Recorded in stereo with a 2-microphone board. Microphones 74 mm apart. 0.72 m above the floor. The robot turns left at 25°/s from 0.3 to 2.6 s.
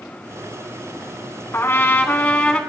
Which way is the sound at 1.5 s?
35° left (ahead or behind).